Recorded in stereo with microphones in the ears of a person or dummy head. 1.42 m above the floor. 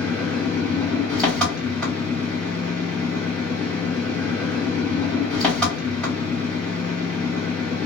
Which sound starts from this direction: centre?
An engine running, at 0.0 s.